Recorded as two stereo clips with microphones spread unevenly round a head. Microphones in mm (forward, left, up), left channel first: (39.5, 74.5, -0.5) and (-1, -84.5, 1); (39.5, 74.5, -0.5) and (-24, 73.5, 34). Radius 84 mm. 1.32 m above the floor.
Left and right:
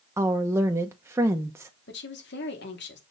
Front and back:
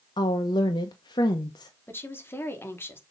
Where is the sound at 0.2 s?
30° right, 0.8 m.